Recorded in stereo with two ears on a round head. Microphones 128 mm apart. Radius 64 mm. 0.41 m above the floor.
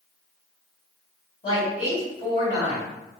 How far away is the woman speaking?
About 1.9 m.